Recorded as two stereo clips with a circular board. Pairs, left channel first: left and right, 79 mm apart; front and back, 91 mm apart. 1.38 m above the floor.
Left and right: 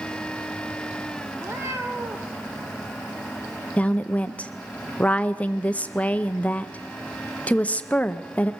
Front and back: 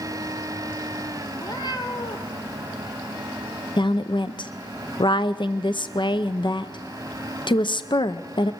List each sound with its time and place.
1.3 s a cat meowing: 40° right, 2.5 m; by 2.4 s 30° right, 2.0 m
3.8 s a woman speaking: 20° left, 0.6 m